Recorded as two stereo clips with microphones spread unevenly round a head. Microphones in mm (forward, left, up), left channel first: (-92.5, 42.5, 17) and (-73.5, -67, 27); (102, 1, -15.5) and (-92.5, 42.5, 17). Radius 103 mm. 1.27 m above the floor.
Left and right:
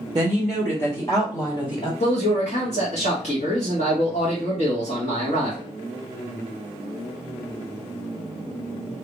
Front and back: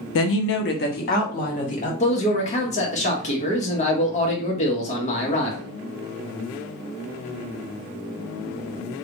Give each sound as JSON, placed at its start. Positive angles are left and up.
{"t": 0.1, "sound": "a woman speaking", "azimuth_deg": -15, "distance_m": 0.5}
{"t": 2.0, "sound": "a man speaking", "azimuth_deg": 45, "distance_m": 1.1}